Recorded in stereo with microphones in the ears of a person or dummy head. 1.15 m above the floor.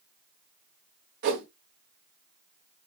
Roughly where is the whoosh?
Right.